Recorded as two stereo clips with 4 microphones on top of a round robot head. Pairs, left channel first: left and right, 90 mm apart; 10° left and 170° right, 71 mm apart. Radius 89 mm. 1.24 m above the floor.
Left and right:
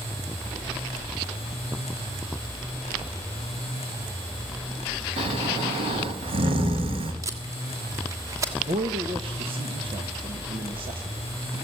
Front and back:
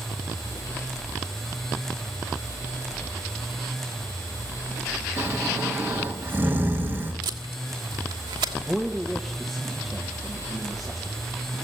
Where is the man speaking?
80° right, 1.5 m.